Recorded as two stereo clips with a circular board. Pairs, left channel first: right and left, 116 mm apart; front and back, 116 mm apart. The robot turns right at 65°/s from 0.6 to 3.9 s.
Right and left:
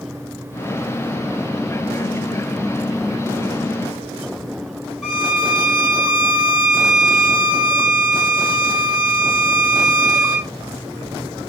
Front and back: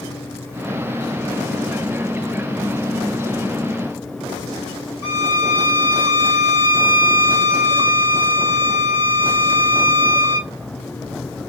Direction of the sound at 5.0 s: 170° left.